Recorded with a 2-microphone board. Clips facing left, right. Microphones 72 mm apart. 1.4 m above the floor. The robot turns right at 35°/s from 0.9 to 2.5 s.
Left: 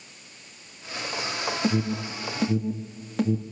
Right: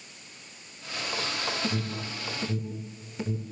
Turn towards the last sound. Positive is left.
turn(degrees=75)  # may be behind; listen again after turning